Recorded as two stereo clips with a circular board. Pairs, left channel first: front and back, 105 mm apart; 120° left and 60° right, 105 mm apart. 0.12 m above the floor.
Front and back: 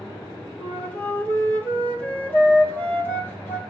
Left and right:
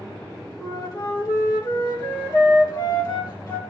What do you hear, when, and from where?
0.6 s a flute: 70° left, 2.5 m